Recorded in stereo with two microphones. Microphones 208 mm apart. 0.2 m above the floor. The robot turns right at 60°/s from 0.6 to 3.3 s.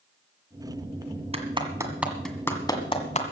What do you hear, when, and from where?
1.3 s a clap: 30° right (ahead or behind), 1.7 m; by 3.2 s 35° left (ahead or behind), 1.7 m